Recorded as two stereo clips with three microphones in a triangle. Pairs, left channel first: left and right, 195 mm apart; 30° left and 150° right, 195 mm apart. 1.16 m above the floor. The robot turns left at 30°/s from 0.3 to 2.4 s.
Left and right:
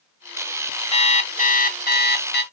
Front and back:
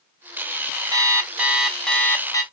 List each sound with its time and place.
0.9 s an alarm clock: 145° left, 1.1 m; by 2.4 s 100° left, 1.1 m